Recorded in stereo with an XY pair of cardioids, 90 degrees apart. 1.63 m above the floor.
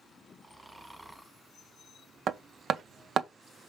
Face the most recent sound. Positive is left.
turn(degrees=-65)